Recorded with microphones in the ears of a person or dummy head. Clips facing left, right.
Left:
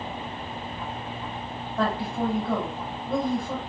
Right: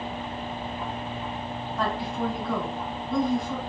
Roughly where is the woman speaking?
Left.